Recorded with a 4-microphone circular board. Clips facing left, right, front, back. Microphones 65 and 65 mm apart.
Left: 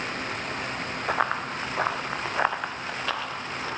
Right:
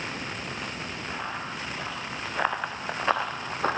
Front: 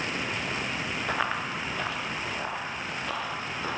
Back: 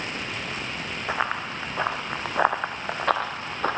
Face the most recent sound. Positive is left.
turn(degrees=-135)